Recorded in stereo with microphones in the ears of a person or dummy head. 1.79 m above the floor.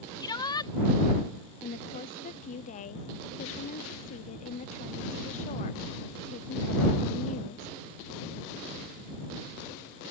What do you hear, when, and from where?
0.2 s a shout: 20° left (ahead or behind)
1.6 s a woman speaking: 35° left (ahead or behind)